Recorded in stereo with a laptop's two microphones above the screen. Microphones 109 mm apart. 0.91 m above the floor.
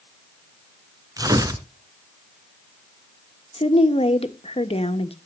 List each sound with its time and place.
1.2 s tearing paper: 30° right (ahead or behind), 1.6 m
3.5 s a woman speaking: 60° left (ahead or behind), 1.2 m